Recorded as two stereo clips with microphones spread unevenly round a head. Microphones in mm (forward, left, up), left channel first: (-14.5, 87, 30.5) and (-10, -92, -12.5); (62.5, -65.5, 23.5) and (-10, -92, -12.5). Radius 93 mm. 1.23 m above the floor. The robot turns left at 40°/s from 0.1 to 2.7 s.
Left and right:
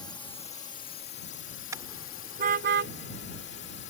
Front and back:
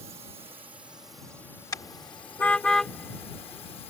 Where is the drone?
165° left; by 3.9 s 60° left.